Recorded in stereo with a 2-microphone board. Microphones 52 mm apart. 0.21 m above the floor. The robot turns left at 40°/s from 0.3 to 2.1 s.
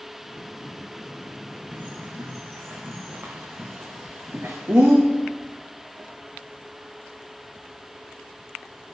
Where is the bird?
25° right (ahead or behind), 4 m; by 5.0 s 40° right (ahead or behind), 4 m.